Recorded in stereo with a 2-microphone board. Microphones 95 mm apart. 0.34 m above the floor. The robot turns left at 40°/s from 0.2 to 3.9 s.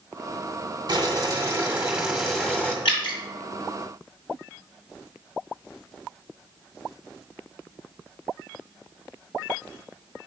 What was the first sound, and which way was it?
Boiling, 120° right.